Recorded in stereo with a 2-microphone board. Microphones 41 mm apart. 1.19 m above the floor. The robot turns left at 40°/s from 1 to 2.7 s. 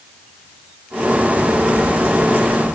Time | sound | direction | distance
1.3 | footsteps | 40° right (ahead or behind) | 1.5 m